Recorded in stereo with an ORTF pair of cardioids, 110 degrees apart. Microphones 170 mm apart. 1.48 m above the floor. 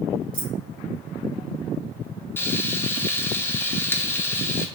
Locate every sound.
0.3 s keys jangling: 30° right, 1.7 m
2.4 s frying: 15° left, 0.5 m